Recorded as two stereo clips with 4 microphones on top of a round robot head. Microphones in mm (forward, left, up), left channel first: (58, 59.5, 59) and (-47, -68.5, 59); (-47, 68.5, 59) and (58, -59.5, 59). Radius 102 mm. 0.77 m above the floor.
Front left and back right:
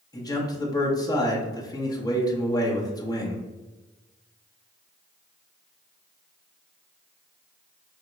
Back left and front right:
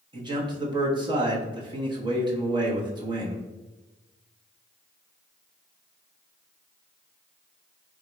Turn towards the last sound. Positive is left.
turn(degrees=-5)